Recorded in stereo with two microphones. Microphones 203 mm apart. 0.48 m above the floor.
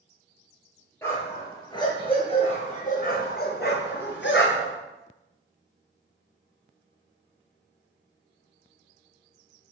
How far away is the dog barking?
About 3 m.